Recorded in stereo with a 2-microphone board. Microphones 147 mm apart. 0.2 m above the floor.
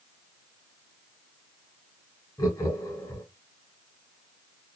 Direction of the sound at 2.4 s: 25° left (ahead or behind).